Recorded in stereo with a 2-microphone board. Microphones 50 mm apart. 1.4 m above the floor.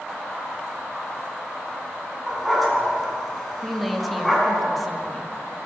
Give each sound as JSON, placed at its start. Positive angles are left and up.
{"t": 2.3, "sound": "a dog barking", "side_deg": 0, "distance_m": 3.5}
{"t": 3.6, "sound": "a woman speaking", "side_deg": 0, "distance_m": 1.7}